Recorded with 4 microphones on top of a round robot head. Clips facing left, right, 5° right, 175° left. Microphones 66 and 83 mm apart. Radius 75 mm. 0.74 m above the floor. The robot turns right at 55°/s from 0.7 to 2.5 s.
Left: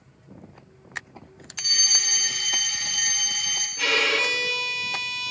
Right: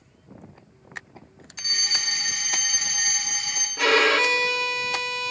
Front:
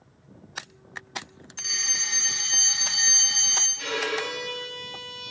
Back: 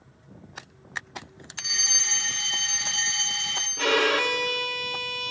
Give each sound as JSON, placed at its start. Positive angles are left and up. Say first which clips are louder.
{"t": 1.6, "sound": "a fire alarm", "louder": "right 1 dB, back 1 dB", "azimuth_deg": -100, "distance_m": 1.6}
{"t": 3.8, "sound": "a violin", "louder": "right 5 dB, back 7 dB", "azimuth_deg": -140, "distance_m": 0.5}